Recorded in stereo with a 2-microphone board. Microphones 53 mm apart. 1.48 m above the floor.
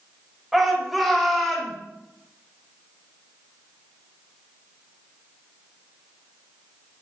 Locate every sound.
0.5 s a shout: 5° right (ahead or behind), 7.5 m; by 1.7 s centre (ahead or behind), 7.5 m